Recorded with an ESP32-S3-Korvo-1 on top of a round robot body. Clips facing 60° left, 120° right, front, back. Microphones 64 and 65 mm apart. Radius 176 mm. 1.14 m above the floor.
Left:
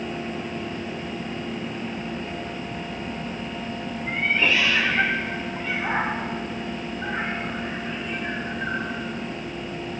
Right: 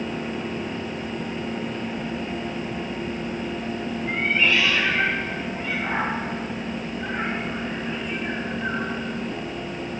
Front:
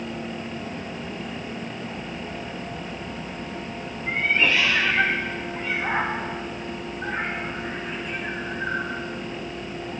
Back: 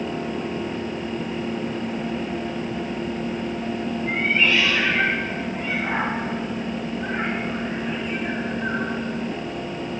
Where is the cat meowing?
50° left, 0.5 m.